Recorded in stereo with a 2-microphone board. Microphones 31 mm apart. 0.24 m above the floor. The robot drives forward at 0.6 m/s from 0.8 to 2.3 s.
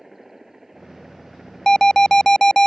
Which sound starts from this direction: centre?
A helicopter, at 0.0 s.